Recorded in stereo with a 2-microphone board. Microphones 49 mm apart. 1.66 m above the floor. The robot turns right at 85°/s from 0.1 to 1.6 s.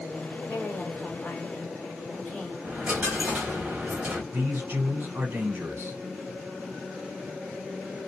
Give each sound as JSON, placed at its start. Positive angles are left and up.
{"t": 0.5, "sound": "a woman speaking", "azimuth_deg": 70, "distance_m": 1.8}
{"t": 2.6, "sound": "a dropped coin", "side_deg": -25, "distance_m": 1.4}
{"t": 4.3, "sound": "a man speaking", "side_deg": -50, "distance_m": 1.3}